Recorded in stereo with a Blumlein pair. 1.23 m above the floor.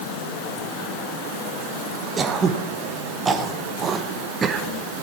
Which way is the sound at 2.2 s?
20° right.